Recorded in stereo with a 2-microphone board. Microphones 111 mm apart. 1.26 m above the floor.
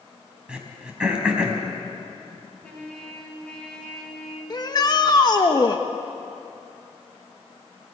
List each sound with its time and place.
0.5 s throat clearing: 10° right (ahead or behind), 3.5 m
2.6 s a trumpet: 10° left (ahead or behind), 6.5 m
4.5 s a shout: 40° left (ahead or behind), 1.1 m